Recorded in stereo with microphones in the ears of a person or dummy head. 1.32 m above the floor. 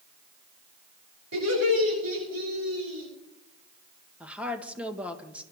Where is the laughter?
85° right, 8.5 m; by 3.1 s 80° right, 9.5 m.